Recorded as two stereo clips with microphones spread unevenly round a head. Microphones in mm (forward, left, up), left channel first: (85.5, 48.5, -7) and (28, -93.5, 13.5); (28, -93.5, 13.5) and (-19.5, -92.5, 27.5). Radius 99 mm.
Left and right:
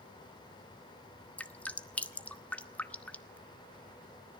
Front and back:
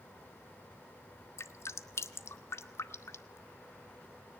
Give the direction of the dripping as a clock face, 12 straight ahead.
1 o'clock.